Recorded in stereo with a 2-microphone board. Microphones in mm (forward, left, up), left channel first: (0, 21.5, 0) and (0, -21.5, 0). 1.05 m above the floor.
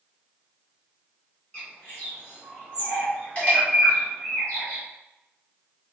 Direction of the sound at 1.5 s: 30° left (ahead or behind).